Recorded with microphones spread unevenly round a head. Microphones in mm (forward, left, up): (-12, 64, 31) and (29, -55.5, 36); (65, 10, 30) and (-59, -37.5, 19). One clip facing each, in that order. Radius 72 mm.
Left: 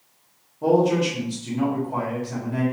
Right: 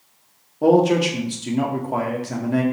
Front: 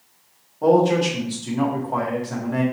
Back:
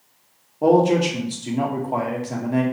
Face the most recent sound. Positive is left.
turn(degrees=-95)